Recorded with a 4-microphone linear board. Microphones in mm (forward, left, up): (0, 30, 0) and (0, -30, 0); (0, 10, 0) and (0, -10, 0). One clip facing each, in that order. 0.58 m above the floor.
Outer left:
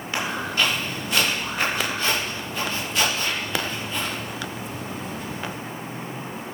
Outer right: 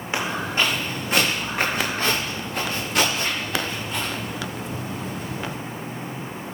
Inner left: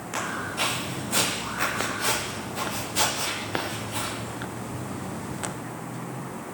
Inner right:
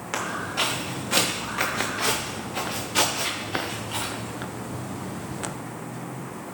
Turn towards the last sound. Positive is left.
turn(degrees=-60)  # may be behind; listen again after turning